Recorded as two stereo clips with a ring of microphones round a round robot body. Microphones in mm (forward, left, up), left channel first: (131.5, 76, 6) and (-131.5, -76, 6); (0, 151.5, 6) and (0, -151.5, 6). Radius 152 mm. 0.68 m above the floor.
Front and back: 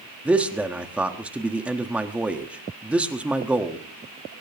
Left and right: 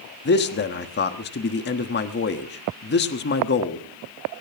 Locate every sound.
0.2 s a man speaking: 125° left, 1.4 m